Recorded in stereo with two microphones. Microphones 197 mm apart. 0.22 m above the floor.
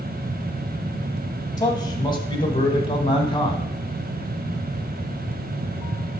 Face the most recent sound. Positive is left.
turn(degrees=25)  # may be behind; listen again after turning